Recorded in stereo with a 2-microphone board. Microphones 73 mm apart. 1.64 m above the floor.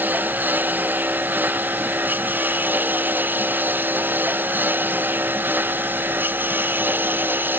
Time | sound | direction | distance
0.0 | a lawn mower | 25° right (ahead or behind) | ?